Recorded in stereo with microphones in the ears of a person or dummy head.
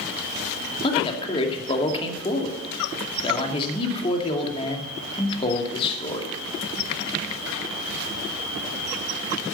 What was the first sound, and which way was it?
A man speaking, 25° left (ahead or behind).